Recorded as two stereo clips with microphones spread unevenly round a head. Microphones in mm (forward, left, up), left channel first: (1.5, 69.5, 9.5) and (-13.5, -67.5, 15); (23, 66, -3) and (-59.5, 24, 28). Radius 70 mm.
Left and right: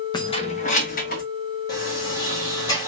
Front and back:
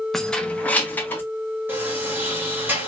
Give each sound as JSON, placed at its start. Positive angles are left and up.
{"t": 0.1, "sound": "keys jangling", "azimuth_deg": 130, "distance_m": 0.8}
{"t": 1.7, "sound": "a sliding door", "azimuth_deg": 150, "distance_m": 1.7}